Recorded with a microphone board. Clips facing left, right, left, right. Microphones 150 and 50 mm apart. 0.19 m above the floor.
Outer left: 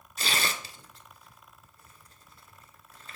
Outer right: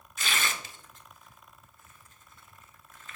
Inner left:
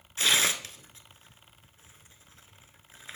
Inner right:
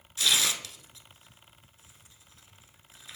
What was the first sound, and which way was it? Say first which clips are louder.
Tearing paper: outer left 1 dB, inner left 2 dB; 40° left (ahead or behind).